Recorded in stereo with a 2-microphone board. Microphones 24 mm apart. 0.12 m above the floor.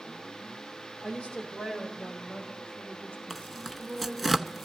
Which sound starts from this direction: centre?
Tearing paper, at 3.3 s.